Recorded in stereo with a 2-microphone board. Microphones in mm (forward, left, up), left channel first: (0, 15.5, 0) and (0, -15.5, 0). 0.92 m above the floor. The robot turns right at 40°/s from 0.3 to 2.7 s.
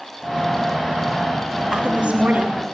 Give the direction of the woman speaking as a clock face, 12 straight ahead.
6 o'clock.